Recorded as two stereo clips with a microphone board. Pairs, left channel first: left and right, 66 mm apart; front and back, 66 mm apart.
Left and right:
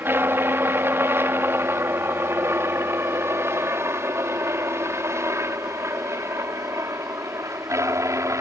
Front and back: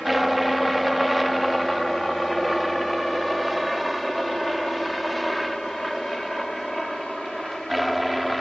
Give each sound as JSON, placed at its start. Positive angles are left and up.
{"t": 0.0, "sound": "a helicopter", "azimuth_deg": -90}